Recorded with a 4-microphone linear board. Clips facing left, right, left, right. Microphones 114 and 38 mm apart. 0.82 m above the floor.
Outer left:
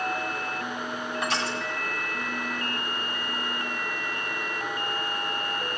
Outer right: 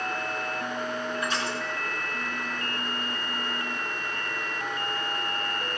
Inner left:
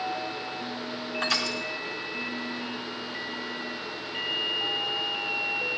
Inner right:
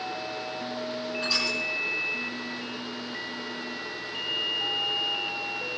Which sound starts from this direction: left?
Crushing, at 1.2 s.